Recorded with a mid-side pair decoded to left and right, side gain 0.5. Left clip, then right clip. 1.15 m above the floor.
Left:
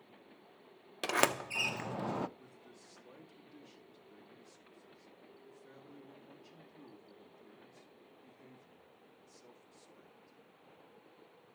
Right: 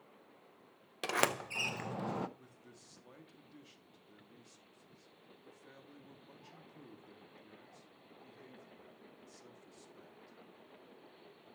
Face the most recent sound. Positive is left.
turn(degrees=-20)